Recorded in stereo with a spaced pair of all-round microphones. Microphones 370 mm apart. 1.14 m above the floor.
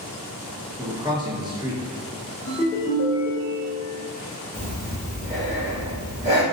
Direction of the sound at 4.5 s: 20° right (ahead or behind).